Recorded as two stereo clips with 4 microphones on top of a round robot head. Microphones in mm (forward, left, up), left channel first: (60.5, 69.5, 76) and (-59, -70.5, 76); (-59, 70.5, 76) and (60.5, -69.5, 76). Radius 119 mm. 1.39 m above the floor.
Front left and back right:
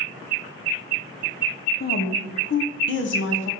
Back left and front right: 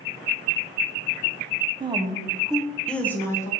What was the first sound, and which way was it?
A woman speaking, 15° left.